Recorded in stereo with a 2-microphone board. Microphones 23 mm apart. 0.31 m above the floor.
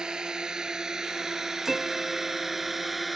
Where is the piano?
10° right (ahead or behind).